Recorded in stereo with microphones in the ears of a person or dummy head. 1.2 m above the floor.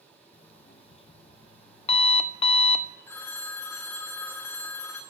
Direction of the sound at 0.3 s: 40° left (ahead or behind).